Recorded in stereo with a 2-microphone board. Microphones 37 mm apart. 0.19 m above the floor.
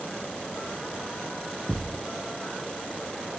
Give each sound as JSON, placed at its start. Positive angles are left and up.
{"t": 1.7, "sound": "a thud", "side_deg": 0, "distance_m": 0.9}